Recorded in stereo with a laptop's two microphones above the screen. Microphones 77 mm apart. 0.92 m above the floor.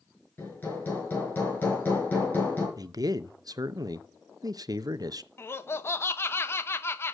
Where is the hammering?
25° left (ahead or behind), 5 m.